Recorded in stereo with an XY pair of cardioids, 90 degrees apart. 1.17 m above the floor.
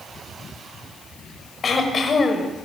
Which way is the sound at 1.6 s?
45° left.